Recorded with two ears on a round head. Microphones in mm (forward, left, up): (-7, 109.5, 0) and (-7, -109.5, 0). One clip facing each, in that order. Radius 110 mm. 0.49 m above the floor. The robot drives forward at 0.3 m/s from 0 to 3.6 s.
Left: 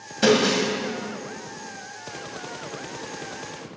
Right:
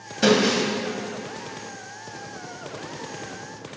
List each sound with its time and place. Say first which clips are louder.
0.2 s breaking glass: even; centre (ahead or behind), 1.6 m